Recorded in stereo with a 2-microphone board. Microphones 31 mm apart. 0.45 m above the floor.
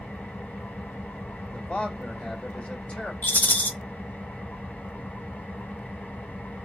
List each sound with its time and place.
0.0 s an engine running: 75° left (ahead or behind), 1.4 m
1.5 s a man speaking: 35° left (ahead or behind), 1.8 m
3.2 s a rattle: 65° left (ahead or behind), 0.6 m